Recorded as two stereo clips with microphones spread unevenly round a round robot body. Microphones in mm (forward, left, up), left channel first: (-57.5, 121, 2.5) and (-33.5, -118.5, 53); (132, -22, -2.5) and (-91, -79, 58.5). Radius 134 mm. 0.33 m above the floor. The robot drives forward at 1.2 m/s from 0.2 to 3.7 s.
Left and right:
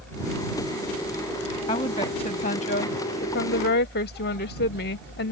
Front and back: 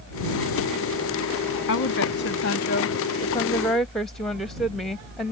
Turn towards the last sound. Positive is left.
turn(degrees=90)